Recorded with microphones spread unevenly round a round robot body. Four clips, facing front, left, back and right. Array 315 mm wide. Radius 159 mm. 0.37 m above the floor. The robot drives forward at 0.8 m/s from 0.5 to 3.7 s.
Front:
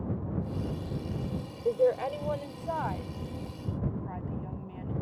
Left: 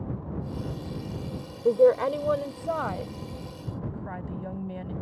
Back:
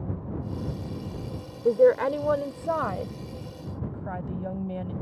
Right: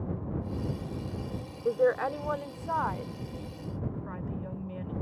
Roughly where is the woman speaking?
Behind left.